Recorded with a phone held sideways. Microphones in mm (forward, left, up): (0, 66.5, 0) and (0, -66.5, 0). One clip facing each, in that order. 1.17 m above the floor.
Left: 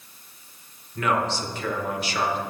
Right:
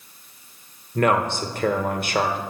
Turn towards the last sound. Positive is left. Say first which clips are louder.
# right 4 dB
turn(degrees=-50)  # may be behind; listen again after turning